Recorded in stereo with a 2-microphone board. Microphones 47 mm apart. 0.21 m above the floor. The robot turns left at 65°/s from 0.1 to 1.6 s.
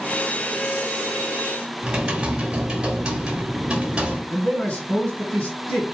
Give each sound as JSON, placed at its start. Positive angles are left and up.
{"t": 1.8, "sound": "typing on a keyboard", "side_deg": -20, "distance_m": 1.5}
{"t": 4.3, "sound": "a man speaking", "side_deg": 30, "distance_m": 1.9}